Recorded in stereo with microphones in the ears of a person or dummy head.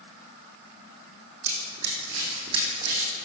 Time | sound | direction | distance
1.4 | running footsteps | 45° right (ahead or behind) | 3 m